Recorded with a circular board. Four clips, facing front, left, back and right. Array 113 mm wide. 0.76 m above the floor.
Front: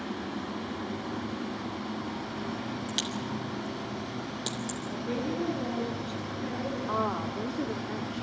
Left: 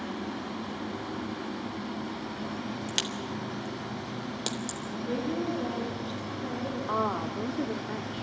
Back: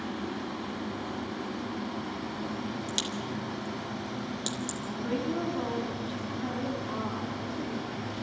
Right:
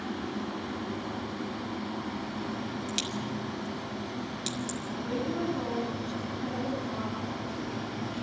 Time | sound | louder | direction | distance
2.9 | a crack | right 1 dB, even | 80° left | 3 m
4.9 | a woman speaking | left 2 dB, back 1 dB | 150° right | 8.5 m
6.9 | a woman speaking | left 5 dB, front 4 dB | 60° left | 2.5 m